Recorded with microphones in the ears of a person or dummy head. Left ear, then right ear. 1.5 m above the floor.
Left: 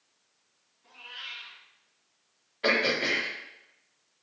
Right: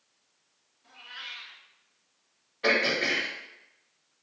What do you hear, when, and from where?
0.8 s a cat meowing: centre (ahead or behind), 1.9 m
2.6 s throat clearing: 5° left (ahead or behind), 1.5 m